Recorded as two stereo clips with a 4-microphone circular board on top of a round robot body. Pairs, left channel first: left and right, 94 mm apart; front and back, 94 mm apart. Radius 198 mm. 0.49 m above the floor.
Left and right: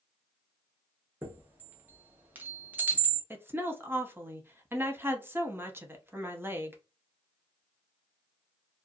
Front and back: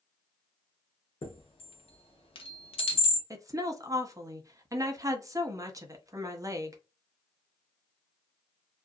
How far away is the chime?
About 0.8 m.